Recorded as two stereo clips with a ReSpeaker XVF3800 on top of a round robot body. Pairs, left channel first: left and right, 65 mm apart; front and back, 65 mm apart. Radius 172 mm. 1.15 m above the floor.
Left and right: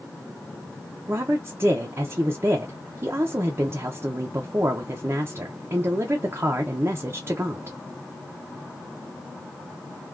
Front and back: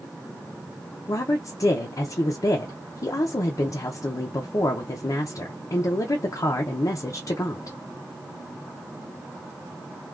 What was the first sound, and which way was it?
A woman speaking, 35° right.